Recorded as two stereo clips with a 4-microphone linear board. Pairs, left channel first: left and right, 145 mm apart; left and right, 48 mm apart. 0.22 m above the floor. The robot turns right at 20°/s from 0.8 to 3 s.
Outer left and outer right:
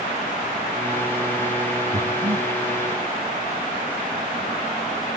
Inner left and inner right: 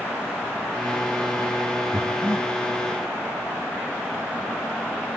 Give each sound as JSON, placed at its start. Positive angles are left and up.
{"t": 1.9, "sound": "breathing", "side_deg": -50, "distance_m": 3.0}